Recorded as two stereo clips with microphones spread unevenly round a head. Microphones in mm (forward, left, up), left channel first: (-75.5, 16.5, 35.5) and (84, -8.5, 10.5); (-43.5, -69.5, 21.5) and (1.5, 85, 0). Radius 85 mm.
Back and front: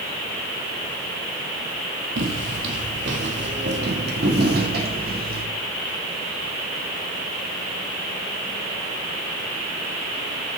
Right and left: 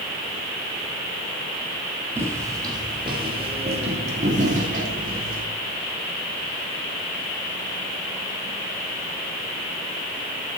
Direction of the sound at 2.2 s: 5° right.